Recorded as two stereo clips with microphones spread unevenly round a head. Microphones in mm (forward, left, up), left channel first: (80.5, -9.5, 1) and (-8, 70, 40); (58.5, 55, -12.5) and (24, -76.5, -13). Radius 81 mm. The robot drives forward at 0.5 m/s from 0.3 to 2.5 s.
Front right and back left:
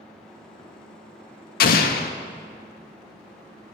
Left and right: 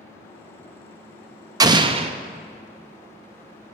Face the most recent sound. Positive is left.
turn(degrees=-100)